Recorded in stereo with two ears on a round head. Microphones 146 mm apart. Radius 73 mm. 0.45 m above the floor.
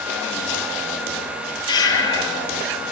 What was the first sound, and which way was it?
Breathing, 25° left (ahead or behind).